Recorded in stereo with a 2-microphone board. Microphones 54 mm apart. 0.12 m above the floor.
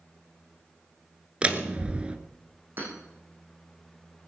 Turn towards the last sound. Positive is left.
turn(degrees=-40)  # may be behind; listen again after turning